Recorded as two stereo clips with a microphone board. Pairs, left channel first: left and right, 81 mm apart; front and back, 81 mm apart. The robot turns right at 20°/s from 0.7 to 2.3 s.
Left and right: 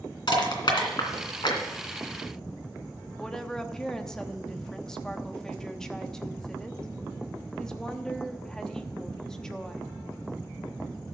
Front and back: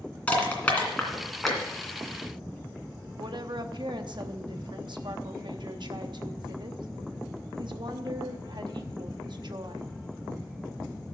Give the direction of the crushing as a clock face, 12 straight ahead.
10 o'clock.